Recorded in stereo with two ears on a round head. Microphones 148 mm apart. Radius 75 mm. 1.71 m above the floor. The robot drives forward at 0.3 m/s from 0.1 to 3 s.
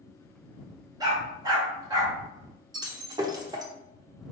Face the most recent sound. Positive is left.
turn(degrees=-25)  # may be behind; listen again after turning